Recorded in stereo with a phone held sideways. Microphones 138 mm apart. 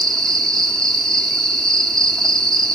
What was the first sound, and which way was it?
An insect, 5° left (ahead or behind).